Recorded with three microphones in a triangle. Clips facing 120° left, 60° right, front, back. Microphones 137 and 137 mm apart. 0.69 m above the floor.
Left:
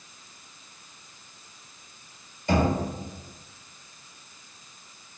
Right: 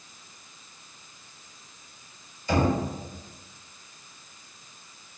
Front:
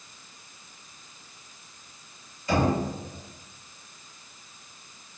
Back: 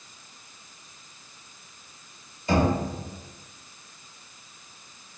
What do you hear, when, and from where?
2.5 s knocking: 120° left, 1.2 m